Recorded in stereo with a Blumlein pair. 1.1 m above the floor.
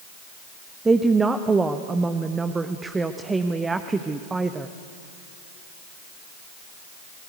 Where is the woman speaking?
10° right, 1.1 m.